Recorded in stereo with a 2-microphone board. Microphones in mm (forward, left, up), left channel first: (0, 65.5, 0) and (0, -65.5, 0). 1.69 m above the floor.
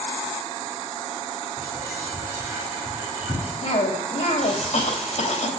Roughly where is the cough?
Left.